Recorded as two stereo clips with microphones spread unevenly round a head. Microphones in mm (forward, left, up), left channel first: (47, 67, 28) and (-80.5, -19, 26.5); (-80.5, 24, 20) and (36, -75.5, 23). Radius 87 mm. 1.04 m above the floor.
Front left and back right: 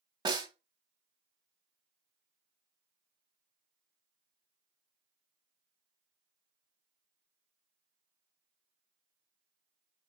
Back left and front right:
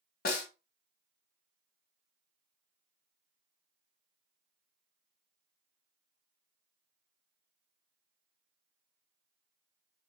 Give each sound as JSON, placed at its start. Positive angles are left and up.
{"t": 0.2, "sound": "a snare drum", "azimuth_deg": 155, "distance_m": 0.9}